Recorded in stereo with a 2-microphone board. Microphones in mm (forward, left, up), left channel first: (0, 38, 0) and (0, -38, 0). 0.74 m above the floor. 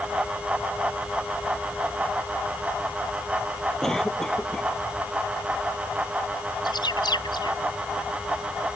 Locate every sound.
3.8 s a cough: 5° left (ahead or behind)
6.7 s a bird: 70° left (ahead or behind)